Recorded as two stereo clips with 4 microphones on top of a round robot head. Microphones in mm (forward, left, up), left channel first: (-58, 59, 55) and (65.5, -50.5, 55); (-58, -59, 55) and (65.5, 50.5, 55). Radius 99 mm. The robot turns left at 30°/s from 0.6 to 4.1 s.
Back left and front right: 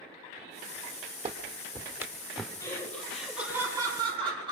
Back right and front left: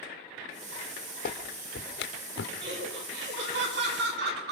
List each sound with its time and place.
1.2 s a clap: 100° right, 1.9 m; by 2.5 s 135° right, 1.9 m
2.6 s laughter: 65° left, 9.5 m; by 4.5 s 20° left, 9.5 m